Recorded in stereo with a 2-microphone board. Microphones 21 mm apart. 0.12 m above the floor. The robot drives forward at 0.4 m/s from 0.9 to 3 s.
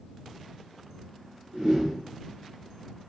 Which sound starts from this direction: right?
A whoosh, at 1.5 s.